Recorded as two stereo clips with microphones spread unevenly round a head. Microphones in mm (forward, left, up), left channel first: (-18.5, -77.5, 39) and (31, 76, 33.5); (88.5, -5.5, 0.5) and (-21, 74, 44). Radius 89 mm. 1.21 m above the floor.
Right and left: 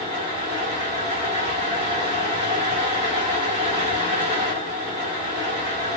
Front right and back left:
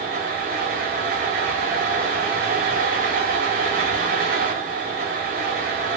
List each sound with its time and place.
0.0 s a fan: 130° left, 2.0 m